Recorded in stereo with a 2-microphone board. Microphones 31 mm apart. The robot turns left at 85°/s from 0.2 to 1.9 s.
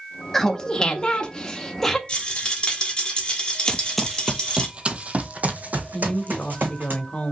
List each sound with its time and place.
0.3 s laughter: 15° left (ahead or behind), 0.7 m; by 2.0 s 5° left (ahead or behind), 0.7 m
2.1 s a rattle: 30° left (ahead or behind), 1.3 m
3.7 s running footsteps: 20° left (ahead or behind), 0.5 m; by 6.9 s 70° right (ahead or behind), 1.6 m
5.9 s a woman speaking: 45° left (ahead or behind), 1.0 m